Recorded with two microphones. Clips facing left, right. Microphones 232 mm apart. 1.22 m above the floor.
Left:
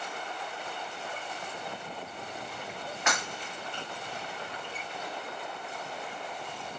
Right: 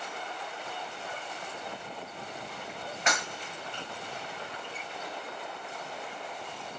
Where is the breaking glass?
35° right (ahead or behind), 1.5 m.